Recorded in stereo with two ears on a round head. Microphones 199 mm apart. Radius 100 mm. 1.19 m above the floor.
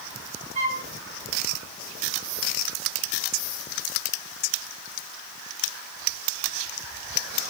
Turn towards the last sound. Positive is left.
turn(degrees=-30)  # may be behind; listen again after turning